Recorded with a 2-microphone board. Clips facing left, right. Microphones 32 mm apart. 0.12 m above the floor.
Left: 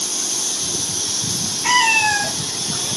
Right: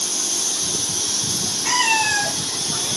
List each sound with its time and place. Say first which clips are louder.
1.6 s a cat meowing: left 4 dB; 40° left (ahead or behind), 1.3 m